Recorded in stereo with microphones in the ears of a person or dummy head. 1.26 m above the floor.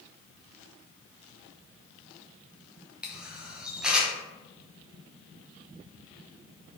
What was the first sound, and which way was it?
A camera shutter, 5° right (ahead or behind).